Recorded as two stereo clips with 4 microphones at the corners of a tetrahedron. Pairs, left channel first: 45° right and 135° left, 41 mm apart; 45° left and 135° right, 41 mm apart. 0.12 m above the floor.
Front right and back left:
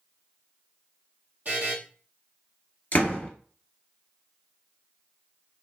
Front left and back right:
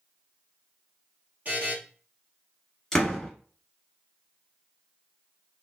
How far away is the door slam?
About 1.4 m.